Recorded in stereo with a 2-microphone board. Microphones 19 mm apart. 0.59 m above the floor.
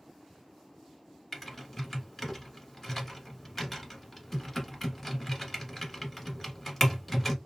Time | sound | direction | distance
1.3 | typing on a keyboard | 15° left (ahead or behind) | 1.1 m